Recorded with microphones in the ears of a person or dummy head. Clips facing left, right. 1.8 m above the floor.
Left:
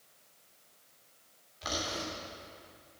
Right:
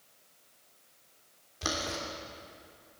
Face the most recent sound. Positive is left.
turn(degrees=-55)  # may be behind; listen again after turning